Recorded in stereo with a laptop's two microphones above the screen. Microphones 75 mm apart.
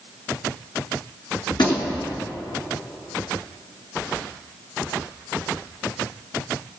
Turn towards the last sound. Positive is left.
turn(degrees=75)  # may be behind; listen again after turning